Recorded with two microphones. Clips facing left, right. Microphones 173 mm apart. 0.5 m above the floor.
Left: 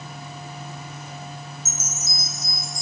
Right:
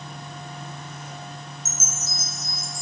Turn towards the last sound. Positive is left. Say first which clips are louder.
# even
turn(degrees=-10)  # may be behind; listen again after turning